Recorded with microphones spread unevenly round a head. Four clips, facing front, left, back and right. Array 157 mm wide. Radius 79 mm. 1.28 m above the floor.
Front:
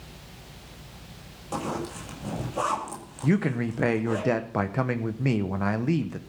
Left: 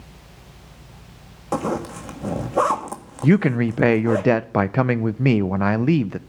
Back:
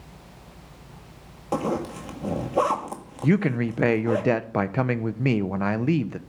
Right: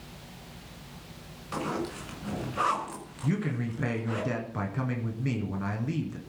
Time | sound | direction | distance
1.5 | a zipper | 120° left | 1.8 m
3.2 | a man speaking | 95° left | 0.8 m